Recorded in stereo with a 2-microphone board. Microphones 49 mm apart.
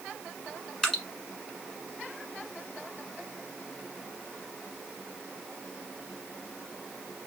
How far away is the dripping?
About 1.3 m.